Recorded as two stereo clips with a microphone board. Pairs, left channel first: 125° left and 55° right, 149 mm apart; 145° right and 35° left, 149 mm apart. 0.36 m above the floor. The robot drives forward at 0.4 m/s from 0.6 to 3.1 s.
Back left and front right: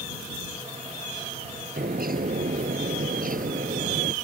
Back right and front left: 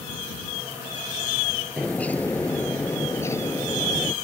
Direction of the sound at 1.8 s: 60° right.